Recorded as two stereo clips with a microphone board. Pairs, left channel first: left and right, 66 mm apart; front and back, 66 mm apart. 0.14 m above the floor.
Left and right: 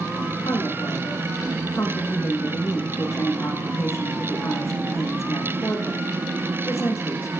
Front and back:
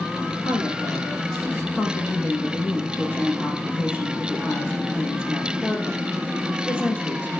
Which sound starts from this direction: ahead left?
A woman speaking, at 0.5 s.